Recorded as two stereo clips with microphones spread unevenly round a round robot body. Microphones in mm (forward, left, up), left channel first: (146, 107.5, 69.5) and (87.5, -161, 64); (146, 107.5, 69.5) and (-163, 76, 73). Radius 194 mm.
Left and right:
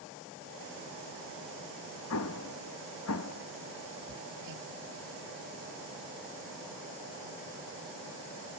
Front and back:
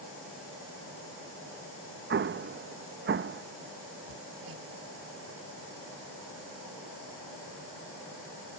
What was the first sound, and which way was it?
An explosion, 125° left.